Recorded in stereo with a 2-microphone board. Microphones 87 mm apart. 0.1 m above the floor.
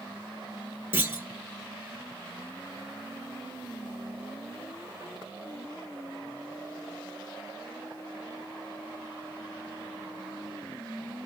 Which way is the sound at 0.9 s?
25° right (ahead or behind).